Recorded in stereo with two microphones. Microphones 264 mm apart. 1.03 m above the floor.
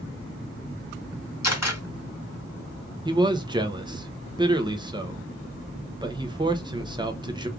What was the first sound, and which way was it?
A camera shutter, 75° left (ahead or behind).